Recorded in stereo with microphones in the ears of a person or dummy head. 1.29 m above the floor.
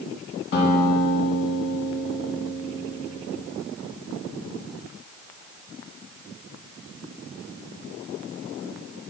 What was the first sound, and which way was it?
A guitar, 60° left (ahead or behind).